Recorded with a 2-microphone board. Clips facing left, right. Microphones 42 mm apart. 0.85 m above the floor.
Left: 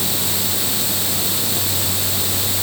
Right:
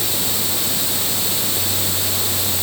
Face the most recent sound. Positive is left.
No sound to turn to.